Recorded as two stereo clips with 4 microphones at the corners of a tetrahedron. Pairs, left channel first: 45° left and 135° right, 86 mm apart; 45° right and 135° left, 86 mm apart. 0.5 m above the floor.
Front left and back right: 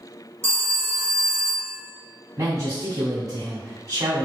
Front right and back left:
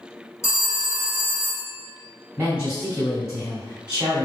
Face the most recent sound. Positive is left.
turn(degrees=-155)